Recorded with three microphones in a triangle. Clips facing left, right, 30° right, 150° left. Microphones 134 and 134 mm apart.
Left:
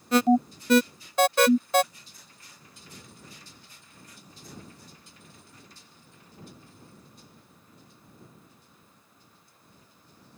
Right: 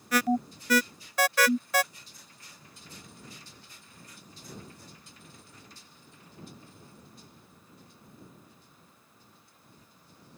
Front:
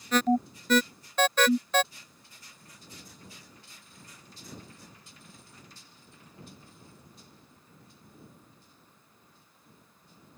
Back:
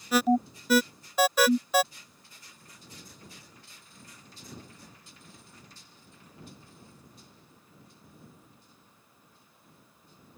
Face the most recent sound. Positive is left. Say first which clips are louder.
# left 6 dB, back 1 dB
turn(degrees=80)